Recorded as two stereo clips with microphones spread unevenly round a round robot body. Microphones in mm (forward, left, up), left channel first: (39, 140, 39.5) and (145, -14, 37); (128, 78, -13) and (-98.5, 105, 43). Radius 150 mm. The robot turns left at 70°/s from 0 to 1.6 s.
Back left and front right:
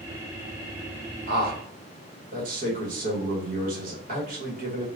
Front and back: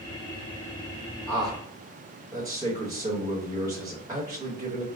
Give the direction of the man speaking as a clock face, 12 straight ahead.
3 o'clock.